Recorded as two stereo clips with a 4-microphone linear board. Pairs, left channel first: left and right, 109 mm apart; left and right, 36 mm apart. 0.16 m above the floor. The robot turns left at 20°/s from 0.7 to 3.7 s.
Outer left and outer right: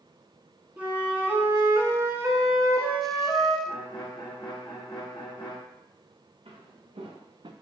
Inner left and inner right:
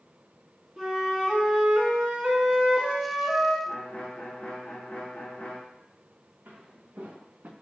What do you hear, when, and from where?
0.8 s a flute: 25° right, 1.0 m; by 3.6 s 80° right, 1.0 m
3.7 s a violin: 55° left (ahead or behind), 1.2 m
6.5 s footsteps: 75° right (ahead or behind), 2 m; by 7.5 s 50° right (ahead or behind), 0.7 m